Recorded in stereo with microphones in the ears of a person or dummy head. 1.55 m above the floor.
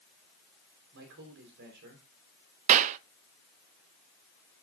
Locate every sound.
0.9 s a man speaking: 65° right (ahead or behind), 4.5 m; by 2.0 s 60° right (ahead or behind), 4.5 m
2.7 s a clap: 40° right (ahead or behind), 0.6 m